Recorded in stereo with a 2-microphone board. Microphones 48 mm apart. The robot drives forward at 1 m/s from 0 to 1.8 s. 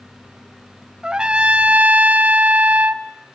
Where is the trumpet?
15° right (ahead or behind), 1.0 m; by 3.0 s 30° right (ahead or behind), 0.6 m.